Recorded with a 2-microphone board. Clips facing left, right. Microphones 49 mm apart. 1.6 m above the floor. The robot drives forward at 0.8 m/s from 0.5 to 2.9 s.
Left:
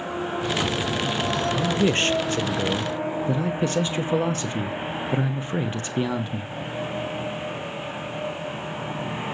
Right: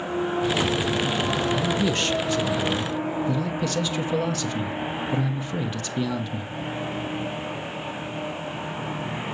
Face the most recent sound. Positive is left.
turn(degrees=35)  # may be behind; listen again after turning